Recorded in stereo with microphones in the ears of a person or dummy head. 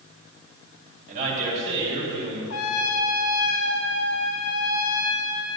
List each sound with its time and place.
1.1 s a man speaking: 40° right (ahead or behind), 4 m; by 2.4 s 30° right (ahead or behind), 5 m
2.5 s a trumpet: 80° left, 1.0 m